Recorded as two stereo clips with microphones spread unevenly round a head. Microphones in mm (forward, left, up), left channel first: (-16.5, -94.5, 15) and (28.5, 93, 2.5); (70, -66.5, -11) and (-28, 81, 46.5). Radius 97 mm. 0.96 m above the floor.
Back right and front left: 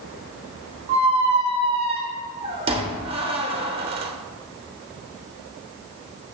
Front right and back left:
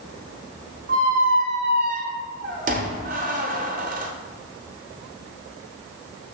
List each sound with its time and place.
0.9 s a squeak: 135° left, 0.8 m